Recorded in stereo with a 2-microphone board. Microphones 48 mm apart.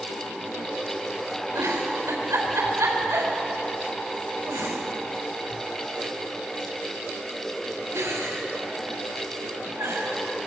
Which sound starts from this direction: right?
A giggle, at 1.6 s.